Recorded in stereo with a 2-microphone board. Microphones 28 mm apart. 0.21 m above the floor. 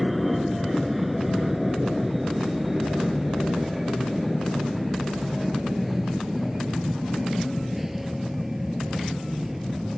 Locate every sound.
0.0 s an aircraft: centre (ahead or behind); by 10.0 s 10° right (ahead or behind)